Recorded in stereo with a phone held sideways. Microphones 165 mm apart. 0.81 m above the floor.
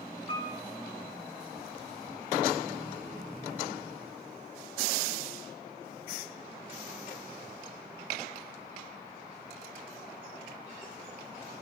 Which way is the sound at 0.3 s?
30° left (ahead or behind).